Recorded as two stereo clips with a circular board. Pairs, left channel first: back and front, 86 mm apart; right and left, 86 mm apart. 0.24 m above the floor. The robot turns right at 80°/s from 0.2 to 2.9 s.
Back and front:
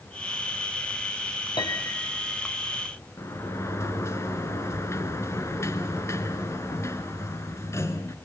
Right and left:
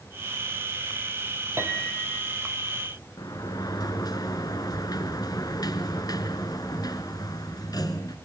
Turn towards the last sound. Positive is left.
turn(degrees=-125)